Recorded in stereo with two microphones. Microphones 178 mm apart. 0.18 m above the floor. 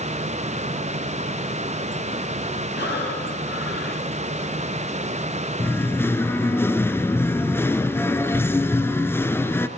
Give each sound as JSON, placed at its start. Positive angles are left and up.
{"t": 2.8, "sound": "breathing", "side_deg": 70, "distance_m": 7.5}
{"t": 5.6, "sound": "singing", "side_deg": 10, "distance_m": 1.3}